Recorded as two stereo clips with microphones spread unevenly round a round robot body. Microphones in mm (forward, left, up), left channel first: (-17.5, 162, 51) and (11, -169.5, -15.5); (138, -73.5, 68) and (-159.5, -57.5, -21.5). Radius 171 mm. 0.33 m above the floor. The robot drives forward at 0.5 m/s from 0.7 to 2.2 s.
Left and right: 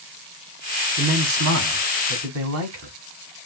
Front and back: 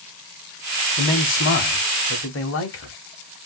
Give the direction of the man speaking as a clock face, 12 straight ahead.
1 o'clock.